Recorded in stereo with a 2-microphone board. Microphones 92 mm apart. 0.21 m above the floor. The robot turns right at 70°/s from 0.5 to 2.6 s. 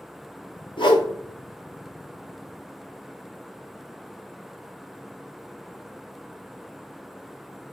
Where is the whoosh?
70° left (ahead or behind), 0.7 m; by 1.1 s 50° left (ahead or behind), 0.7 m.